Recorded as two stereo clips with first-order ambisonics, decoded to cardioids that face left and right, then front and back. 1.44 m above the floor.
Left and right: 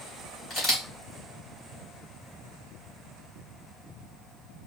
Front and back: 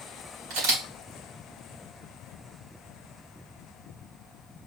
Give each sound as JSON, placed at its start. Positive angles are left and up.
{"t": 0.5, "sound": "a camera shutter", "azimuth_deg": 175, "distance_m": 3.0}